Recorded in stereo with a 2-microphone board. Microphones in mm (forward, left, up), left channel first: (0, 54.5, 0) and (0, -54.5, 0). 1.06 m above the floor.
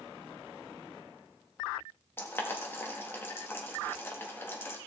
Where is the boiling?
20° left (ahead or behind), 1.7 m.